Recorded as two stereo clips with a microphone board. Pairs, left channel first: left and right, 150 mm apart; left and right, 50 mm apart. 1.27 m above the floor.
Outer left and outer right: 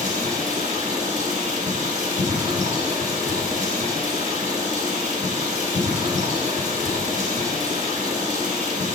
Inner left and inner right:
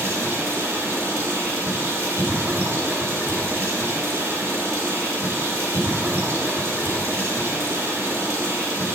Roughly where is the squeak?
No squeak in this recording.